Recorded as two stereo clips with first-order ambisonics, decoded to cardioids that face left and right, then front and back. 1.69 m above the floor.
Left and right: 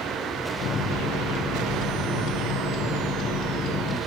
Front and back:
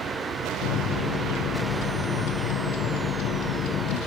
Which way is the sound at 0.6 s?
35° left.